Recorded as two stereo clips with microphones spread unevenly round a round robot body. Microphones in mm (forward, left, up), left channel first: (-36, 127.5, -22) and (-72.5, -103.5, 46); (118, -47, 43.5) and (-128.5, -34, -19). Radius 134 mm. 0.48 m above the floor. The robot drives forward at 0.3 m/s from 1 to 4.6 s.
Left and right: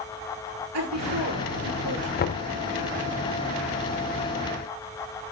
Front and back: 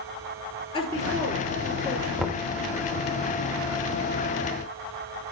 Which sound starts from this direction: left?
Knocking, at 2.2 s.